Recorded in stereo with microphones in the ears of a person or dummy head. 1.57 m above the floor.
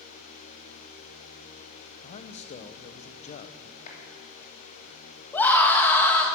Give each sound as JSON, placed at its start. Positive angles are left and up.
{"t": 2.0, "sound": "a man speaking", "side_deg": 40, "distance_m": 0.8}
{"t": 3.9, "sound": "a clap", "side_deg": 40, "distance_m": 3.0}
{"t": 5.3, "sound": "a scream", "side_deg": 15, "distance_m": 1.9}